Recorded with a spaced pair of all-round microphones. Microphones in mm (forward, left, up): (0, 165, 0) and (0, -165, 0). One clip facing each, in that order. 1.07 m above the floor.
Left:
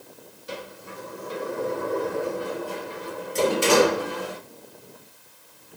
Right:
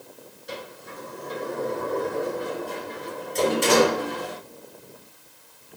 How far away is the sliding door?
About 4 m.